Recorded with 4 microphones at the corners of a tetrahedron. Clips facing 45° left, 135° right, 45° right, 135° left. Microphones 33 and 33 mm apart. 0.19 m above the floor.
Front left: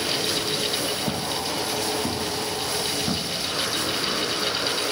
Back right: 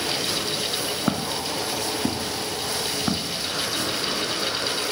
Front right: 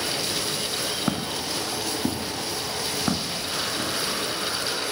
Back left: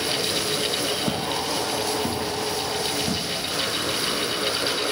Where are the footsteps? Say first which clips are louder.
Back right 1 dB, back left 2 dB; 110° right, 2.5 m; by 3.9 s 80° right, 4.5 m.